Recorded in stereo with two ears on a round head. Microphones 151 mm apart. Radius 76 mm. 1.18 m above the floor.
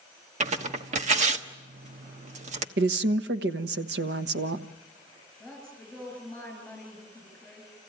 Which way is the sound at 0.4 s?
45° right (ahead or behind).